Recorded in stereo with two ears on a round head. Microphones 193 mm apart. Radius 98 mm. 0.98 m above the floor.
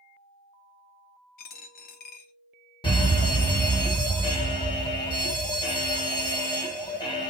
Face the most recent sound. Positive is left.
turn(degrees=25)  # may be behind; listen again after turning